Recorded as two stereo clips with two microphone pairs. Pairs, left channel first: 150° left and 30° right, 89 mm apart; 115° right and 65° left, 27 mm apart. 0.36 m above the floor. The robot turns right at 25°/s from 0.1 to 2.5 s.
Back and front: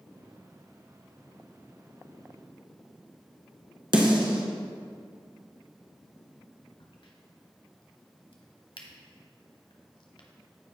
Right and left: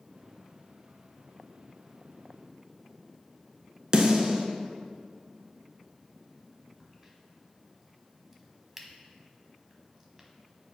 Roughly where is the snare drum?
Ahead.